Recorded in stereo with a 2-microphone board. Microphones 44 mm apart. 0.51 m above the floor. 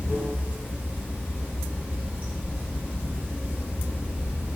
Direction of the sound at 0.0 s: 30° right (ahead or behind).